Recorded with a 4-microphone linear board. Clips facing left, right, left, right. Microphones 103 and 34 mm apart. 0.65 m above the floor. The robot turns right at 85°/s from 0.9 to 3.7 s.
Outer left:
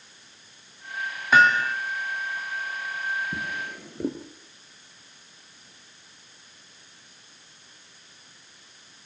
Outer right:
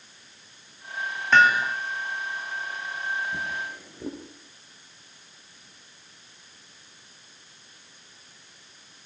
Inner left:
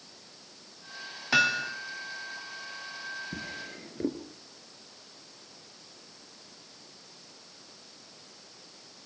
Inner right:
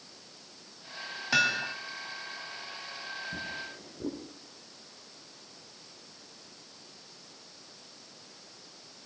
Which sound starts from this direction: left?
A drawer, at 3.3 s.